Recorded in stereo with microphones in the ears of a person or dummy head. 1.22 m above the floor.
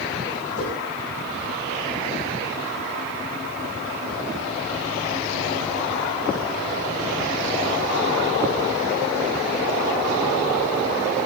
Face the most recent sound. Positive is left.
turn(degrees=75)  # may be behind; listen again after turning